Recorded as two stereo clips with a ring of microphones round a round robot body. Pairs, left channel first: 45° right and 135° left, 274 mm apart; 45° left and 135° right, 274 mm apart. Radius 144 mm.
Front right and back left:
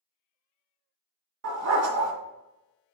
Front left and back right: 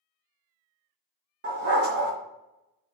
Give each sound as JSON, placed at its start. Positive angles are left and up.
{"t": 1.4, "sound": "a dog barking", "azimuth_deg": 170, "distance_m": 2.0}